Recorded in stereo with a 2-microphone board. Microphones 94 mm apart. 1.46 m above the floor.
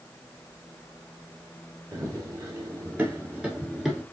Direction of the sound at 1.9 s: 30° right (ahead or behind).